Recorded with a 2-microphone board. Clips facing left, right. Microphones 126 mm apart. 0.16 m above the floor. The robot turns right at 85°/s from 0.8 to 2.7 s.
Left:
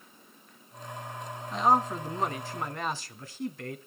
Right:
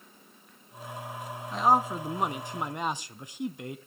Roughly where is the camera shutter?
I don't hear a camera shutter.